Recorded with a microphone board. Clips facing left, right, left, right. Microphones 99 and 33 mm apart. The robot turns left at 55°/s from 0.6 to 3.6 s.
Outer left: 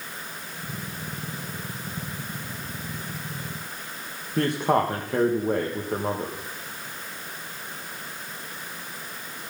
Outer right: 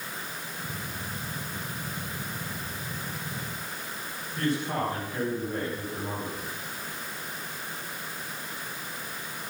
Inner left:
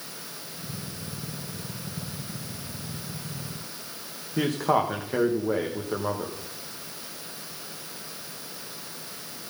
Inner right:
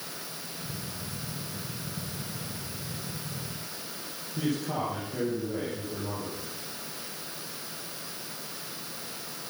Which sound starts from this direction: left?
A man speaking, at 4.4 s.